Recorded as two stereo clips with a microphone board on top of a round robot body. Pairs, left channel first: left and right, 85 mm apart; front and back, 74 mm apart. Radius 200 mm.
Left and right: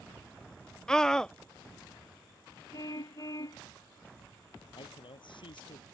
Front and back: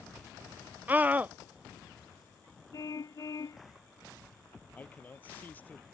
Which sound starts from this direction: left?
A man speaking, at 4.8 s.